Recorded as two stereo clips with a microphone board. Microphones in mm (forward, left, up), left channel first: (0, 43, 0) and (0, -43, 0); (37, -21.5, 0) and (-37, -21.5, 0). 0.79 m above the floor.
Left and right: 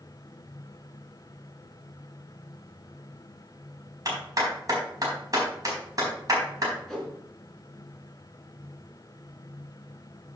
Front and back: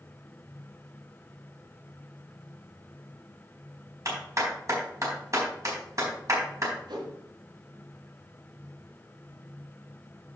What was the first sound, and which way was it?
A clap, 135° right.